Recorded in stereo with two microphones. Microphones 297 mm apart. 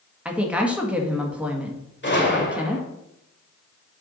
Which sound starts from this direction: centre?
A woman speaking, at 0.2 s.